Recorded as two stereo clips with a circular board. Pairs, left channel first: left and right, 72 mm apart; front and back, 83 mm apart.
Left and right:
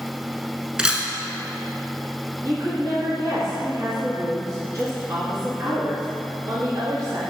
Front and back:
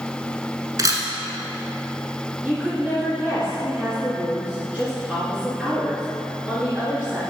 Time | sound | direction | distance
0.8 | a camera shutter | 165° right | 1.0 m
2.4 | a woman speaking | 110° right | 1.9 m